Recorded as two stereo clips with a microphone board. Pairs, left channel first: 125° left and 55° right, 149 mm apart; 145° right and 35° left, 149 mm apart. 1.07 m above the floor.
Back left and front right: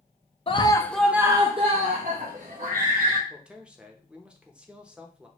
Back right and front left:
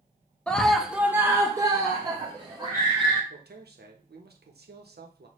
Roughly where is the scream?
Behind left.